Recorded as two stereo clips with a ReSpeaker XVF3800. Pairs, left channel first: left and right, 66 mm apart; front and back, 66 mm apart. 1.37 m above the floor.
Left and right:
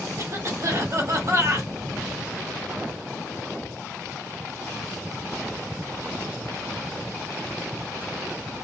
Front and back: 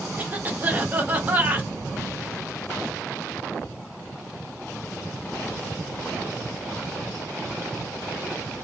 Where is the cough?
115° right, 0.8 m.